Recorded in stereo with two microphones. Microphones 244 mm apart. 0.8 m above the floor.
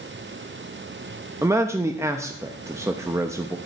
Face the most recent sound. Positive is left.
turn(degrees=-10)  # may be behind; listen again after turning